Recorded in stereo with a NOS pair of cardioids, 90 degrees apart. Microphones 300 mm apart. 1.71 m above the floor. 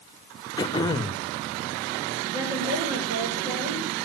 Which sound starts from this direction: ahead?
Throat clearing, at 0.6 s.